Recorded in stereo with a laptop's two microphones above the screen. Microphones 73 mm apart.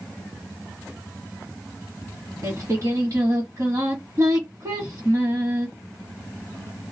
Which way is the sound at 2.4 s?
50° right (ahead or behind).